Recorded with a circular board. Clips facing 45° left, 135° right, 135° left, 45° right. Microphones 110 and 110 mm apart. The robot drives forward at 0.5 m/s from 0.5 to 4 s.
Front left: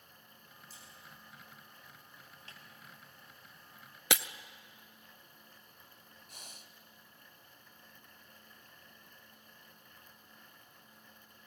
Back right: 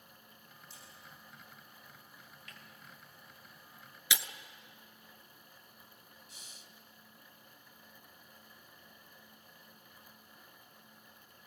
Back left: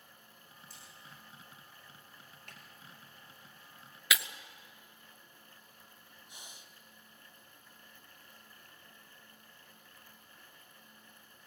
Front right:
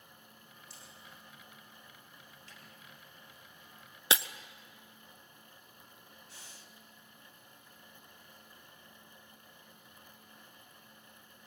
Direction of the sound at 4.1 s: 15° left.